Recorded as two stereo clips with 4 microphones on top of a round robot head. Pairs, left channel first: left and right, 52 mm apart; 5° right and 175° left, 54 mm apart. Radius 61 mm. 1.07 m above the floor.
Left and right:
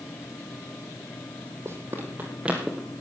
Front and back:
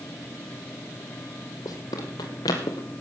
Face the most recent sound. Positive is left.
turn(degrees=0)